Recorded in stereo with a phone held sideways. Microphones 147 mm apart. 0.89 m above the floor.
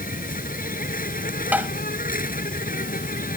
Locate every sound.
0.0 s an insect: 75° left (ahead or behind)
1.5 s tapping: 10° right (ahead or behind)